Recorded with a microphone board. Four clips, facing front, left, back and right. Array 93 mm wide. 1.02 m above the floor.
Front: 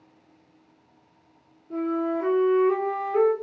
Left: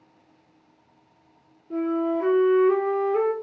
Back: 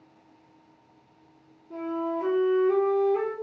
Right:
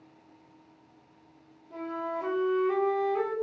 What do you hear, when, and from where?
1.7 s a flute: 65° left, 2.5 m